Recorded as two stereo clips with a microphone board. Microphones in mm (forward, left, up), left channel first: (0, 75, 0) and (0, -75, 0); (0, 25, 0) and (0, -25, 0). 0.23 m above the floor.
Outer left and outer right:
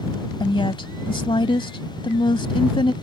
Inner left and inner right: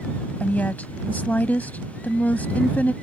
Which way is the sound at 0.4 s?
35° left (ahead or behind).